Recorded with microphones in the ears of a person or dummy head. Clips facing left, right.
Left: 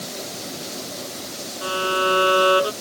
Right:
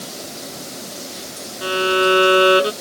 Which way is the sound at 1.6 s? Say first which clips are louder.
Right 6 dB; 25° right (ahead or behind).